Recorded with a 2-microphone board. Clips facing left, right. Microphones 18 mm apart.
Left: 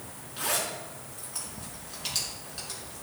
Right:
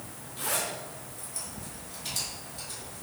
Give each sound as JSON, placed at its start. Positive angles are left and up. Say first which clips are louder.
{"t": 0.4, "sound": "a zipper", "louder": "left 1 dB", "side_deg": 55, "distance_m": 5.5}